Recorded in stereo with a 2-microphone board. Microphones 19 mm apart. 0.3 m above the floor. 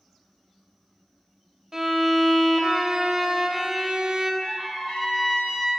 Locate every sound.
1.7 s a violin: 25° right (ahead or behind), 0.5 m
4.4 s a trumpet: 55° left (ahead or behind), 1.9 m